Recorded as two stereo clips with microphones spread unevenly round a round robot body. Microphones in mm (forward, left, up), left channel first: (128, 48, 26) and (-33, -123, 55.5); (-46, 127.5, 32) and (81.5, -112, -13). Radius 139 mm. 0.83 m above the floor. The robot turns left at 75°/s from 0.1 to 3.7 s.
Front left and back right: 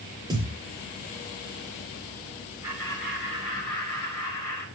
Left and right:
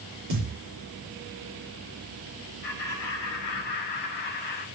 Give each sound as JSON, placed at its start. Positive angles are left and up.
{"t": 0.3, "sound": "a thud", "azimuth_deg": -60, "distance_m": 7.0}
{"t": 2.6, "sound": "laughter", "azimuth_deg": 145, "distance_m": 4.5}